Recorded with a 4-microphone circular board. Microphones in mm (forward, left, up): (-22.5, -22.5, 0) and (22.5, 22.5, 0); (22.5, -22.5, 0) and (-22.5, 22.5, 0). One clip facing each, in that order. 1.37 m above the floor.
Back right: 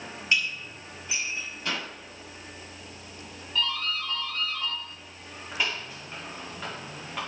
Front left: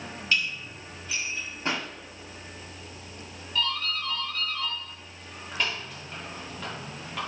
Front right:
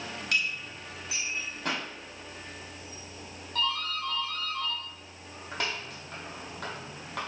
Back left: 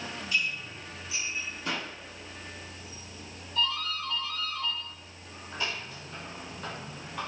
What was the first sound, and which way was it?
Dishes clattering, 65° right.